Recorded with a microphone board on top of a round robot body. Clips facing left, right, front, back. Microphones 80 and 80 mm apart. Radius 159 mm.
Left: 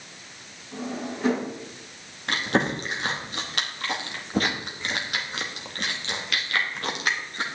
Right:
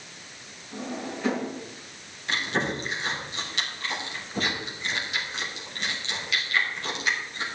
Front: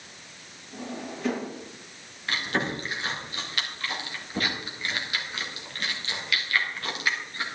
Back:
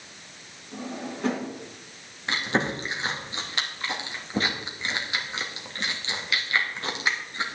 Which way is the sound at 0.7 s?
140° left.